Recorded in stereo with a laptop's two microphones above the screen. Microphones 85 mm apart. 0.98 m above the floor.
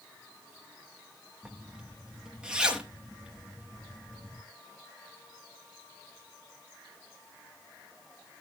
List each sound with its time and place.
1.4 s a zipper: 10° right (ahead or behind), 1.0 m